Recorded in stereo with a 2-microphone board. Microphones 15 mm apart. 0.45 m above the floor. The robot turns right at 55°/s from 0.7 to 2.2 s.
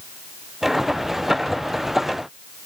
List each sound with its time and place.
Only background noise.